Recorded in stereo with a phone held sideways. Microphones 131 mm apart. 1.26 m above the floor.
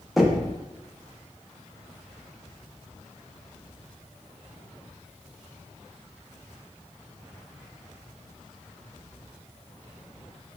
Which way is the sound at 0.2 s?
Centre (ahead or behind).